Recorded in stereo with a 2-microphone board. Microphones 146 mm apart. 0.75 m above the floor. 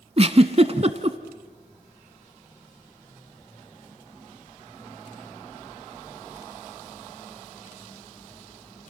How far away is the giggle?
About 1.1 m.